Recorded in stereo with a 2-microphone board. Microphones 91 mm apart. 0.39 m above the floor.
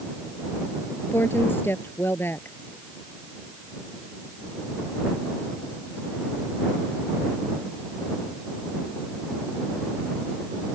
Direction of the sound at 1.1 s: 25° left (ahead or behind).